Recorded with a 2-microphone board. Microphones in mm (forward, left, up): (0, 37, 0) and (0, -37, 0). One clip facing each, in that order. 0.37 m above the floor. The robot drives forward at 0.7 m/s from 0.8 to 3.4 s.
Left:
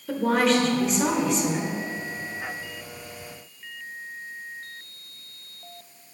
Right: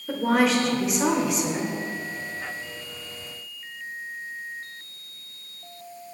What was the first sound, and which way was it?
A woman speaking, 5° right (ahead or behind).